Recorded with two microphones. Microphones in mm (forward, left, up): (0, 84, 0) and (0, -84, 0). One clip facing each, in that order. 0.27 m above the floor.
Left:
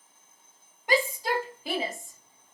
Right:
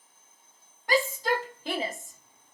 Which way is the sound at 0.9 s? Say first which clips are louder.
Even; 20° left (ahead or behind).